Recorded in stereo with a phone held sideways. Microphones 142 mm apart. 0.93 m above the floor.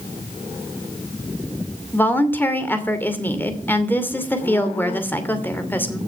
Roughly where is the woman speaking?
Centre.